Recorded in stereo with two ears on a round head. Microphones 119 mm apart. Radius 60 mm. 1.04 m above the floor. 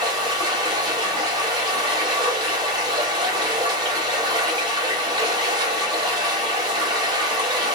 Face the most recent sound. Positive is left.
turn(degrees=-35)  # may be behind; listen again after turning